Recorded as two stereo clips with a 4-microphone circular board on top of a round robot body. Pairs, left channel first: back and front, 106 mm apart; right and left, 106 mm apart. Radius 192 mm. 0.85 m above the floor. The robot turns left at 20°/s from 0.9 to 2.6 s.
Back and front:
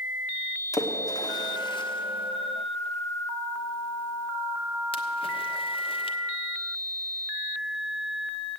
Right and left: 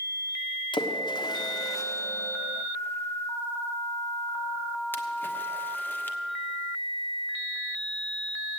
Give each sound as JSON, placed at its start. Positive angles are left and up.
{"t": 0.7, "sound": "a splash", "azimuth_deg": -125, "distance_m": 1.3}